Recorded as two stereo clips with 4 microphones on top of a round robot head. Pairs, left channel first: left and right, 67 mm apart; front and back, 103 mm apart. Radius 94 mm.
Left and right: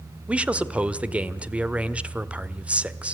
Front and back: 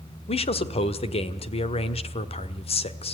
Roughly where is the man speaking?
Ahead.